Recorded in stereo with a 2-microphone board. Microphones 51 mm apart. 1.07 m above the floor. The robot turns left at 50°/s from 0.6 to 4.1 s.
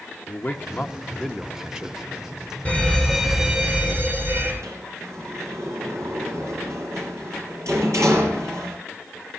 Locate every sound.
0.3 s a man speaking: 45° left, 1.5 m; by 2.0 s 25° right, 1.5 m
2.6 s a fire alarm: 25° left, 7 m; by 4.5 s 50° right, 7 m
4.6 s a sliding door: 75° right (ahead or behind), 7.5 m